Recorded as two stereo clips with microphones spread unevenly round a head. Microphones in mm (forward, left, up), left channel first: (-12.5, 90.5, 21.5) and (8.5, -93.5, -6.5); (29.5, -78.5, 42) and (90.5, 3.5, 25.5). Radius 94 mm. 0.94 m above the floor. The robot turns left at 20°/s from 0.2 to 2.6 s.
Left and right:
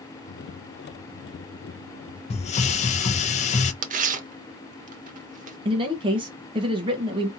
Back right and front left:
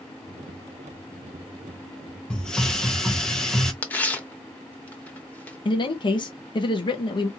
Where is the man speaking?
110° right, 0.7 m.